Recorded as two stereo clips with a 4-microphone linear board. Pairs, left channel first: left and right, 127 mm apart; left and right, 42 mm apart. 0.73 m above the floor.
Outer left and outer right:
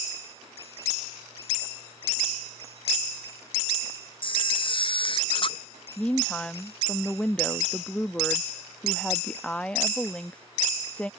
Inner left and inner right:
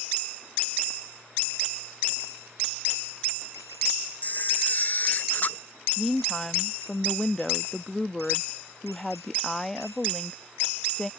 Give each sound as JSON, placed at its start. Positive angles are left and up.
{"t": 4.2, "sound": "a camera shutter", "side_deg": 40}
{"t": 6.0, "sound": "a woman speaking", "side_deg": 10}